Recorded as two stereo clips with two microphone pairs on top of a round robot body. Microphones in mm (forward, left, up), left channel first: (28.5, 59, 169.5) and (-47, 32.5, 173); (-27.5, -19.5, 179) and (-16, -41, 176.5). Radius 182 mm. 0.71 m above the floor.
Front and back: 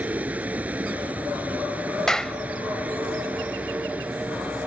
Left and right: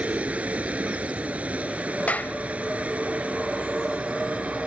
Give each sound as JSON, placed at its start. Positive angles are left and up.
{"t": 0.0, "sound": "a vehicle", "azimuth_deg": -85}
{"t": 2.1, "sound": "a clap", "azimuth_deg": 105}